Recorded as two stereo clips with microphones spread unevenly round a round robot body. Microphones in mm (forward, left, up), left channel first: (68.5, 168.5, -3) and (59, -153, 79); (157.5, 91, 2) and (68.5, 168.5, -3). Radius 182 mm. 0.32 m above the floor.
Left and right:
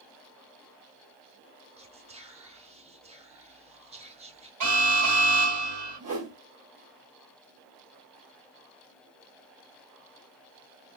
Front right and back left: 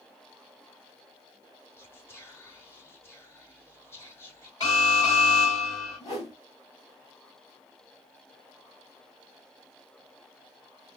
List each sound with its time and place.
1.8 s whispering: 15° right, 1.0 m
4.6 s an alarm: 120° right, 3.5 m
6.0 s a whoosh: 105° right, 2 m